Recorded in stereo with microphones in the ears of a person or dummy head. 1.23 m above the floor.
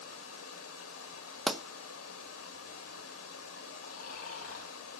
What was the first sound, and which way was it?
Running water, 80° left.